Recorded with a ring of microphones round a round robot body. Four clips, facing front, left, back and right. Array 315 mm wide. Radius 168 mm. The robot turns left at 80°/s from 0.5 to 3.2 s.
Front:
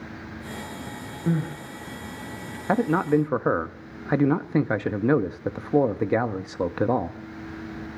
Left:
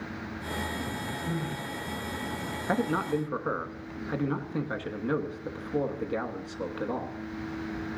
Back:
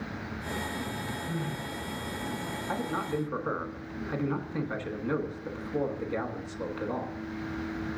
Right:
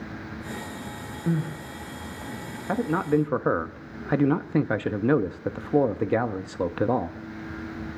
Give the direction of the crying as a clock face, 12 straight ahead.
1 o'clock.